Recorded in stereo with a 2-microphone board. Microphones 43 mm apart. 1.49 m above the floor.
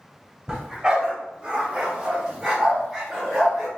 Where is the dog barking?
20° right (ahead or behind), 1.4 m; by 3.7 s 5° right (ahead or behind), 1.8 m.